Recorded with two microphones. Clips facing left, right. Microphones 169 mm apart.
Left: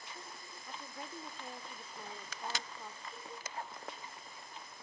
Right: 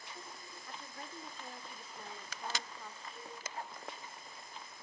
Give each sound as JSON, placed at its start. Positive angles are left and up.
{"t": 0.7, "sound": "a woman speaking", "side_deg": 10, "distance_m": 1.5}
{"t": 3.1, "sound": "a cowbell", "side_deg": 50, "distance_m": 4.0}